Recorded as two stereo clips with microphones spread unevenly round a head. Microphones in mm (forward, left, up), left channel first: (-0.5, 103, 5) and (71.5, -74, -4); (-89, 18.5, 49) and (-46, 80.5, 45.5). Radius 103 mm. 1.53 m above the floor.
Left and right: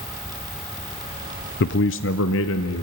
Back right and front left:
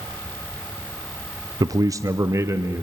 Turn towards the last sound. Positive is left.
turn(degrees=110)